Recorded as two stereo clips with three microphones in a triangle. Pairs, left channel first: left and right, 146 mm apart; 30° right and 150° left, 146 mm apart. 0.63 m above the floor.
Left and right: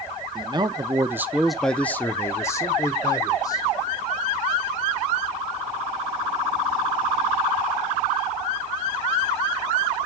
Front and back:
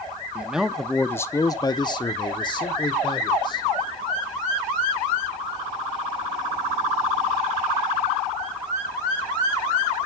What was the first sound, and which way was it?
A man speaking, 130° right.